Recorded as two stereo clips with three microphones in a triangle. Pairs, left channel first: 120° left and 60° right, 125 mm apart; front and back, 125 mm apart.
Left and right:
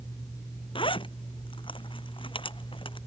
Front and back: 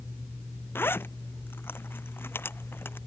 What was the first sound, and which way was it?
A zipper, 75° left.